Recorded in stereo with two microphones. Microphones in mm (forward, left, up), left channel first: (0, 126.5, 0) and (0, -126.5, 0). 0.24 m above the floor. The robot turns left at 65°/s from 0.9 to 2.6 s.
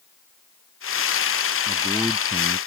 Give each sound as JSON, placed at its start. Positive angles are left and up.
{"t": 1.7, "sound": "a man speaking", "azimuth_deg": 15}